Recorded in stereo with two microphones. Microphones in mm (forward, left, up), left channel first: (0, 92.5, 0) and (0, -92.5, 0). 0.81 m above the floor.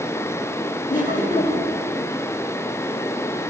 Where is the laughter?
45° left (ahead or behind), 2 m.